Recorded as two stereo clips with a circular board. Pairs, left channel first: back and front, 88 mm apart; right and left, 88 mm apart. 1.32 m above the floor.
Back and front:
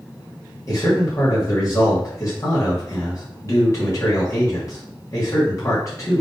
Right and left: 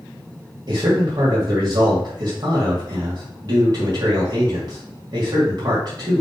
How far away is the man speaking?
About 2.5 m.